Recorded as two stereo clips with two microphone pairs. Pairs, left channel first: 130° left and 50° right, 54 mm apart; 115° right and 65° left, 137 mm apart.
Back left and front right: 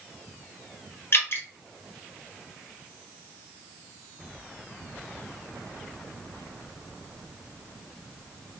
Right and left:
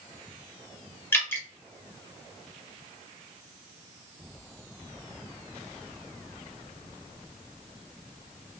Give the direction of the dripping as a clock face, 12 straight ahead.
6 o'clock.